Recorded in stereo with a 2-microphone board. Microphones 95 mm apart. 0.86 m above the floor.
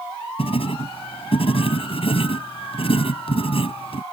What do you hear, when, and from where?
0.4 s writing: 70° left (ahead or behind)